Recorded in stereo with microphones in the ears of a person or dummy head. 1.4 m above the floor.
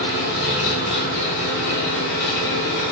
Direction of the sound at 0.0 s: 60° left (ahead or behind).